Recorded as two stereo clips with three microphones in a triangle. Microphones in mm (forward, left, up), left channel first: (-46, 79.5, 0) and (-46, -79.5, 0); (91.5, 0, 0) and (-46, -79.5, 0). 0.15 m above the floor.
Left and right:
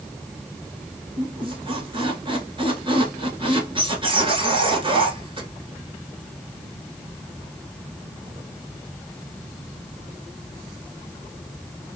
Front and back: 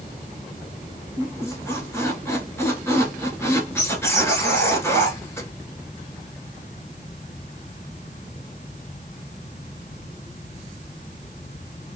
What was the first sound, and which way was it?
A squeak, 40° right.